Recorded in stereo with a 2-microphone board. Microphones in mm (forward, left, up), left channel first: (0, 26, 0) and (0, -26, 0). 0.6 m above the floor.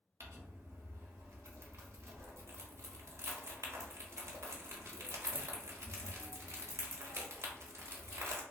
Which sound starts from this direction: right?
Crumpling, at 0.2 s.